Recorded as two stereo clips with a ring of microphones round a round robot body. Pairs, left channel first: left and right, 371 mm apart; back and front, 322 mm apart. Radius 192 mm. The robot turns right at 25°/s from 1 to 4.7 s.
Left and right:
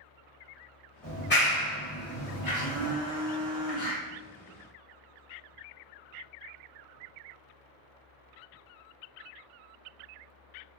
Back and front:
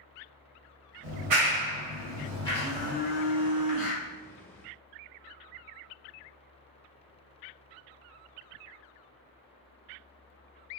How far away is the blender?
About 1.3 m.